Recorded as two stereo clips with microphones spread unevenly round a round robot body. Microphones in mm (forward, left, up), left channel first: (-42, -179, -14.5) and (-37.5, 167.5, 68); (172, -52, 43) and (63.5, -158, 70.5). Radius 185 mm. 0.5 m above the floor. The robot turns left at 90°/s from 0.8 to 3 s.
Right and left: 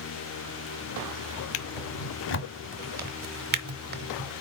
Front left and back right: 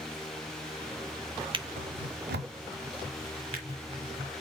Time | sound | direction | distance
1.5 | a drawer | 75° right | 1.2 m